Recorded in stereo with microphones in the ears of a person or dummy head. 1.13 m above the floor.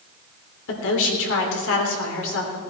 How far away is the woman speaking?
About 3 m.